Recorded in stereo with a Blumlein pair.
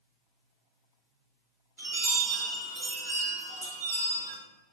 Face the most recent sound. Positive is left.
turn(degrees=-70)